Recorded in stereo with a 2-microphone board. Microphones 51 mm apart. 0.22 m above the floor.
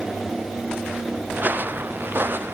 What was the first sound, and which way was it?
Footsteps, 35° right (ahead or behind).